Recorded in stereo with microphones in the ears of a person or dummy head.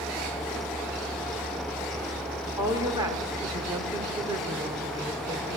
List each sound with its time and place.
2.6 s a woman speaking: 15° right (ahead or behind), 3.5 m